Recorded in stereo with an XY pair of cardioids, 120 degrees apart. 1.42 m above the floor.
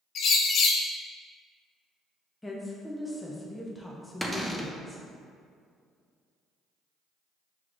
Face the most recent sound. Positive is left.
turn(degrees=0)